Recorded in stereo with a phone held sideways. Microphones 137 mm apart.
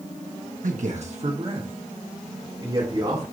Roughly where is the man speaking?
Right.